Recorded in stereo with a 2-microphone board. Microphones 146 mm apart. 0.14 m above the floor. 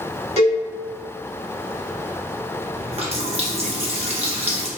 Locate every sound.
0.4 s a cowbell: 45° right (ahead or behind), 1.6 m
2.8 s a running tap: 45° right (ahead or behind), 1.2 m